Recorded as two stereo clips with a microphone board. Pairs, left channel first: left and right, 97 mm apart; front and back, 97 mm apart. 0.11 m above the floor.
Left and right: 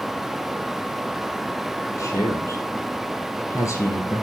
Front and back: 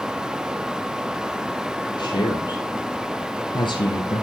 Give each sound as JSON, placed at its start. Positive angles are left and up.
{"t": 2.0, "sound": "a man speaking", "azimuth_deg": 35, "distance_m": 4.0}